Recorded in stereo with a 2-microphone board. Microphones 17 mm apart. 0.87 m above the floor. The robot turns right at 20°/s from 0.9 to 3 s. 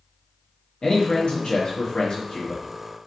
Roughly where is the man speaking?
Left.